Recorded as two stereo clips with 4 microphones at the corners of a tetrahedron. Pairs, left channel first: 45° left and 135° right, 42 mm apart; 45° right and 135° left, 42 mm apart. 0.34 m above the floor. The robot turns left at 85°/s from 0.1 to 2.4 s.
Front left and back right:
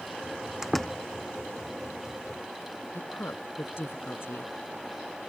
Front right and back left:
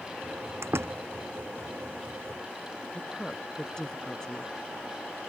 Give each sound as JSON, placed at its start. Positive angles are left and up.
{"t": 0.6, "sound": "a door slam", "azimuth_deg": 145}
{"t": 2.9, "sound": "a woman speaking", "azimuth_deg": 30}